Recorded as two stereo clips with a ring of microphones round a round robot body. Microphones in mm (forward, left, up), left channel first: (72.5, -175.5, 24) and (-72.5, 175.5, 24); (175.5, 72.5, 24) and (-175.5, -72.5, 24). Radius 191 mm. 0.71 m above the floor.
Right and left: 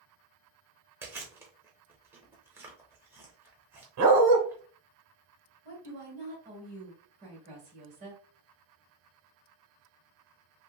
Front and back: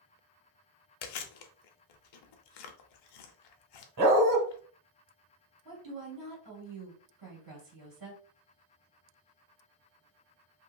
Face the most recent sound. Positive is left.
turn(degrees=175)